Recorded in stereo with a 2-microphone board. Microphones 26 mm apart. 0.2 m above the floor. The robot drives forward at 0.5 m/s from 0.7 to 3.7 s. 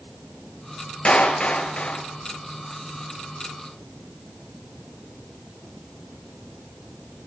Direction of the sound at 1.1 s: 45° left (ahead or behind).